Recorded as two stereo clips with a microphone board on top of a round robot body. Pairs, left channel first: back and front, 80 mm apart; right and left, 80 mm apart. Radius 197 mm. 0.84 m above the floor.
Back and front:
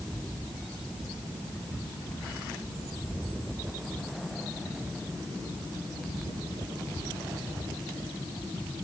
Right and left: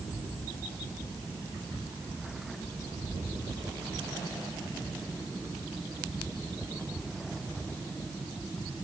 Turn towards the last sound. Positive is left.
No sound to turn to.